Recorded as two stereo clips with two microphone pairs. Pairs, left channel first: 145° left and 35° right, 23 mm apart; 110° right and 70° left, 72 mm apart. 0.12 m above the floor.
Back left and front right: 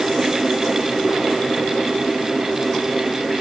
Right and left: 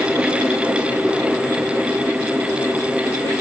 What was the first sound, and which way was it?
Only background noise.